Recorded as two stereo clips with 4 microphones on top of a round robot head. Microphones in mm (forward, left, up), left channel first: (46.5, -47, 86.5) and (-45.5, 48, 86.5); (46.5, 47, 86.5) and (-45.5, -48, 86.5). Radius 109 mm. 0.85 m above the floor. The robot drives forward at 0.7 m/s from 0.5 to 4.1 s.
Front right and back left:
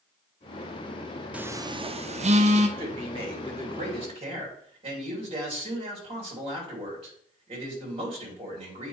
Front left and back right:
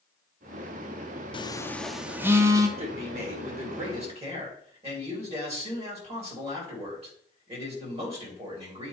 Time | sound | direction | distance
1.3 | a phone buzzing | 60° left | 0.5 m
2.8 | a man speaking | straight behind | 2 m